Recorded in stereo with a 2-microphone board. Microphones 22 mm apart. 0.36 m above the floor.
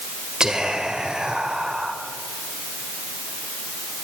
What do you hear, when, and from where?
0.4 s whispering: 35° right (ahead or behind), 1.5 m